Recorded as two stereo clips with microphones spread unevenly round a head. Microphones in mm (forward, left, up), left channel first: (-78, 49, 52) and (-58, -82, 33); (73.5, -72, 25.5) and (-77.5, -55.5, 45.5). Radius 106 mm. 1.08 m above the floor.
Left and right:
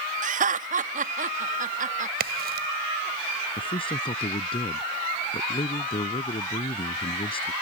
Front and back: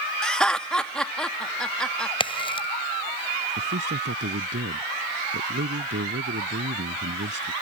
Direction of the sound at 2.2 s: 65° right.